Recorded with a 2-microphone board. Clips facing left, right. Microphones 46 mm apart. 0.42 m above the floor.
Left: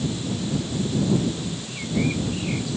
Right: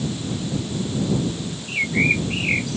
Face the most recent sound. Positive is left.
turn(degrees=-55)  # may be behind; listen again after turning